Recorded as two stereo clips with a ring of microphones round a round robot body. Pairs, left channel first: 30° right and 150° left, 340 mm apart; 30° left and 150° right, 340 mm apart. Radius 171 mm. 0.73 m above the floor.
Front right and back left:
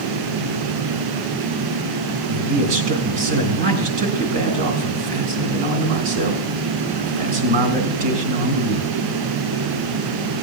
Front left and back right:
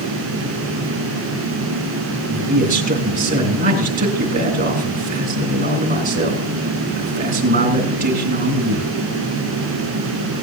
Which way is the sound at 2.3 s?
140° left.